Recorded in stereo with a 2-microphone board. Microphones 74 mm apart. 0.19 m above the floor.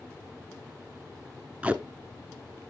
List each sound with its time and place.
1.6 s tape being pulled: 20° right (ahead or behind), 0.5 m